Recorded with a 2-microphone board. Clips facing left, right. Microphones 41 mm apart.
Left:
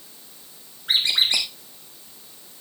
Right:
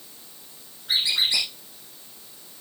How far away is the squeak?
About 2.5 m.